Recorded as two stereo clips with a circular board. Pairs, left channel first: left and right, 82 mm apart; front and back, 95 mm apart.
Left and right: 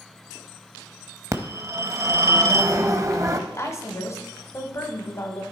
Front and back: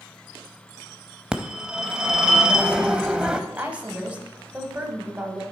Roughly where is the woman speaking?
Behind left.